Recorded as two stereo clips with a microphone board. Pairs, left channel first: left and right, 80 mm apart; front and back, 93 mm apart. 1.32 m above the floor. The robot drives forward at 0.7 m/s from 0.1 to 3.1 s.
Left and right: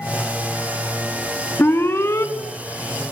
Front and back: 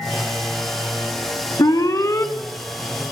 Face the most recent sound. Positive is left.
turn(degrees=90)